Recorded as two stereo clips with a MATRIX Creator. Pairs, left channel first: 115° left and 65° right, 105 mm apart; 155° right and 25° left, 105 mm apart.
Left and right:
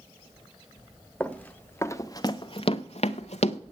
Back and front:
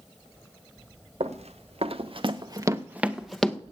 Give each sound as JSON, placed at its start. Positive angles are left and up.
{"t": 1.2, "sound": "running footsteps", "azimuth_deg": 30, "distance_m": 1.1}